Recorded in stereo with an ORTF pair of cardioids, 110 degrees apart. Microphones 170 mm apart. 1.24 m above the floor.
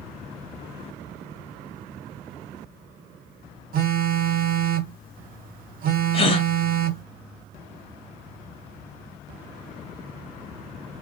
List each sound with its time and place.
3.7 s a phone buzzing: 55° right, 1.1 m
6.1 s a gasp: 30° left, 1.2 m